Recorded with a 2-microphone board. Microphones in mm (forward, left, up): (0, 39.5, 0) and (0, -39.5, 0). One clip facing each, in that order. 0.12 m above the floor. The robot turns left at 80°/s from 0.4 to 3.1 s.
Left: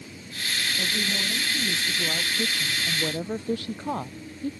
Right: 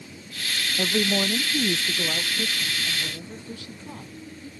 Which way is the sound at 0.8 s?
60° right.